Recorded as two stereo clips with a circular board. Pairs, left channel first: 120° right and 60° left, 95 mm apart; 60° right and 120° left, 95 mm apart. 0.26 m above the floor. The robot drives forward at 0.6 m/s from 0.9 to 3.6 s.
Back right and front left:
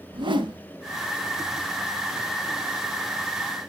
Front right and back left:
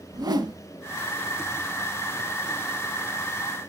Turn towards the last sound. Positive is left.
turn(degrees=150)